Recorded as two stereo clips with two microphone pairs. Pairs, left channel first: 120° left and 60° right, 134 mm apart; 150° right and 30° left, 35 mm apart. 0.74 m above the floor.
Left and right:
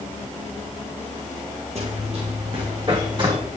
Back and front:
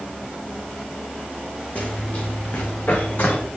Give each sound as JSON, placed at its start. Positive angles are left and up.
{"t": 1.8, "sound": "running footsteps", "azimuth_deg": -100, "distance_m": 3.5}